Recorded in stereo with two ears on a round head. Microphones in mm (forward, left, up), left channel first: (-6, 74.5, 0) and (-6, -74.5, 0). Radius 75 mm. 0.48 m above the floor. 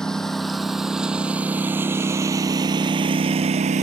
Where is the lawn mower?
5° left (ahead or behind); by 3.8 s 45° right (ahead or behind).